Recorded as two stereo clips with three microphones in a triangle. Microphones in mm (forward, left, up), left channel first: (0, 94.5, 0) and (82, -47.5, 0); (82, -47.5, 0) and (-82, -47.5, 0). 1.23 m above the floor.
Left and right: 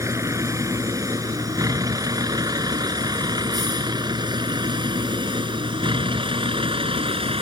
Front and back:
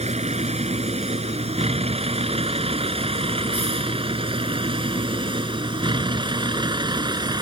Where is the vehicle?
130° right; by 7.4 s 115° right.